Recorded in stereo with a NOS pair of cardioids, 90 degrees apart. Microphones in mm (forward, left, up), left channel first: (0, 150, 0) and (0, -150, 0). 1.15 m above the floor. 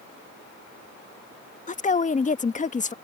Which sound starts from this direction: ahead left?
A woman speaking, at 1.7 s.